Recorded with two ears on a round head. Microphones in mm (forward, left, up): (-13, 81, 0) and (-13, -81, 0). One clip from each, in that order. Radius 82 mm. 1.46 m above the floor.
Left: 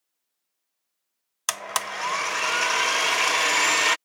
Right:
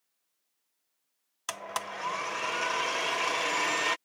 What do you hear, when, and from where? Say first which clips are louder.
1.5 s a blender: left 7 dB; 40° left (ahead or behind)